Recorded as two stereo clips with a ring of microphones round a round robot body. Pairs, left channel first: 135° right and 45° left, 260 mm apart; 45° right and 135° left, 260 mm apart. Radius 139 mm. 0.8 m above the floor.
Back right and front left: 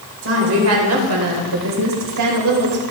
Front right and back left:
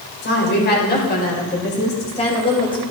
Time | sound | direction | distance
0.2 | a woman speaking | 5° left | 3.5 m